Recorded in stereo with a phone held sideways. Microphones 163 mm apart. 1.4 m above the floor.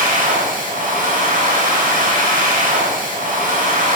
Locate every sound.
0.0 s a machine running: 60° right (ahead or behind), 1.9 m